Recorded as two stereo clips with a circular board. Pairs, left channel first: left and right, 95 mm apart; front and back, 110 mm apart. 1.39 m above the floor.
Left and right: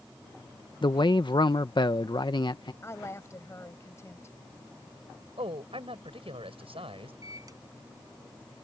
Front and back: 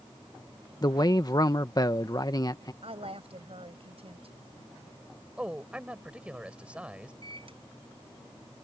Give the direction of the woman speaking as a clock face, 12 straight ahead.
7 o'clock.